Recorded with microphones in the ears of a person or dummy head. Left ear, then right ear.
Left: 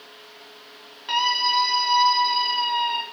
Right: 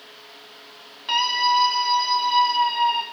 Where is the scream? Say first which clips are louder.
Right 1 dB; 5° right (ahead or behind), 3 m; by 3.0 s 35° left (ahead or behind), 4.5 m.